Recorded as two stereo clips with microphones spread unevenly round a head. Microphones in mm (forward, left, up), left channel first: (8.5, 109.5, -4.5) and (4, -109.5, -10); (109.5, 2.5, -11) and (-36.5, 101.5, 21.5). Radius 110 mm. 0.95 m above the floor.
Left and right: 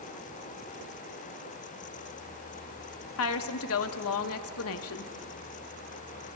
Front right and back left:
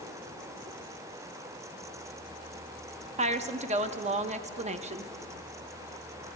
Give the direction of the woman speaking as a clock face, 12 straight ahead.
9 o'clock.